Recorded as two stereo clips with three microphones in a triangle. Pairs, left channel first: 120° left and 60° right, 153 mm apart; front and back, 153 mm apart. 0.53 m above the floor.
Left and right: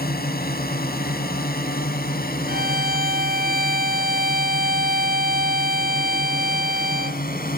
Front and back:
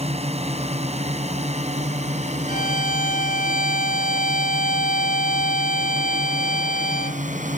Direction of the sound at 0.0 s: 130° left.